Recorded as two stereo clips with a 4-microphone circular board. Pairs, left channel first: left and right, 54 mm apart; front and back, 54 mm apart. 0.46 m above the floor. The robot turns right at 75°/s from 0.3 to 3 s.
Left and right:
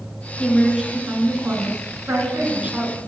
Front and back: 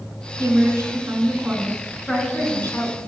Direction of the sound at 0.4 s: 160° left.